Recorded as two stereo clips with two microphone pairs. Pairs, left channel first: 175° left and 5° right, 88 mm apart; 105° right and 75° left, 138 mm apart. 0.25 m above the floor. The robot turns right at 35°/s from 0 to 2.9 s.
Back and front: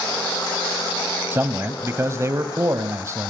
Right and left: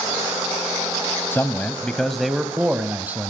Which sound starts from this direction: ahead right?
A man speaking, at 1.3 s.